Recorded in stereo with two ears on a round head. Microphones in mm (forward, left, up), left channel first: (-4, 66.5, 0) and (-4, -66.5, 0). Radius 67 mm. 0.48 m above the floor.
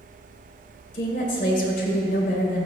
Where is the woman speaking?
50° left (ahead or behind), 2 m.